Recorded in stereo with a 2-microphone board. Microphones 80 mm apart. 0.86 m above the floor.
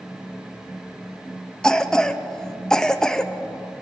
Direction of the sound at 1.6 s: 5° left (ahead or behind).